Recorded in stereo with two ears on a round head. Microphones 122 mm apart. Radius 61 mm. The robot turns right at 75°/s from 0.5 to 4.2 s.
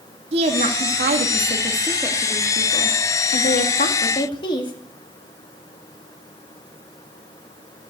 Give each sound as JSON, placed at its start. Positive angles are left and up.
{"t": 0.3, "sound": "a woman speaking", "azimuth_deg": -135, "distance_m": 1.8}